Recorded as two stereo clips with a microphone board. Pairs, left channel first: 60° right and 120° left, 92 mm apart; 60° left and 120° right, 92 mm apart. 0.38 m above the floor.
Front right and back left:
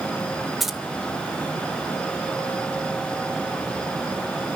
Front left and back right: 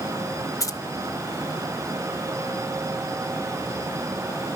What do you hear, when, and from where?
0.6 s keys jangling: 35° left, 0.6 m